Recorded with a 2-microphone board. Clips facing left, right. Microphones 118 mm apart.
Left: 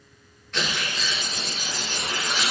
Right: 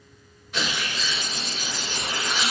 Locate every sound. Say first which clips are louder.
0.5 s tearing paper: even; 10° right (ahead or behind), 1.2 m